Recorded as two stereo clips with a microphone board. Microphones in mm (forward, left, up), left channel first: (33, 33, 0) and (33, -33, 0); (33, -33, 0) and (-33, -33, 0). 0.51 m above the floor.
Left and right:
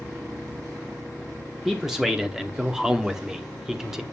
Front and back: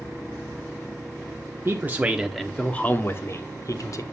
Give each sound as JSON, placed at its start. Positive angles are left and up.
{"t": 1.6, "sound": "a man speaking", "azimuth_deg": -175, "distance_m": 0.9}